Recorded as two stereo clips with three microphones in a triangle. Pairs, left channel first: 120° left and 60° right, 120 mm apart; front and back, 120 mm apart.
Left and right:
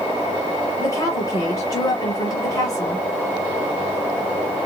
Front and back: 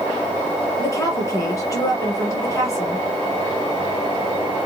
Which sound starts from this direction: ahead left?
A woman speaking, at 0.8 s.